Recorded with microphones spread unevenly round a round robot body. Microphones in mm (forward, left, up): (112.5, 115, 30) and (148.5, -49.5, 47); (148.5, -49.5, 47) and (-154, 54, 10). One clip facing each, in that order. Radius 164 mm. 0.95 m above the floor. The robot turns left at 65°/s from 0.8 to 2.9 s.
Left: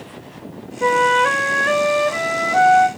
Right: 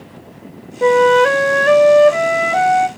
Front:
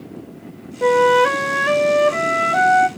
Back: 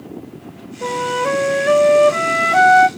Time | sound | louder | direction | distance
0.8 | a flute | right 7 dB, front 8 dB | 30° right | 0.6 m